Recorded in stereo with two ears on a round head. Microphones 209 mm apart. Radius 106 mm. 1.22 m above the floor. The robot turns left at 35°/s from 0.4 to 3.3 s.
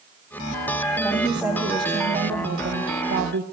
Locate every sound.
1.0 s a woman speaking: 5° left, 0.8 m; by 3.4 s 75° right, 0.8 m